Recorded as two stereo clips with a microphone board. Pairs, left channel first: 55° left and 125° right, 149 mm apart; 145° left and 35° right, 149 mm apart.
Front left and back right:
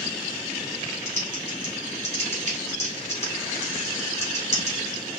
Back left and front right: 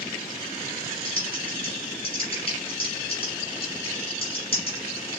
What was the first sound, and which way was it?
Typing on a keyboard, 95° left.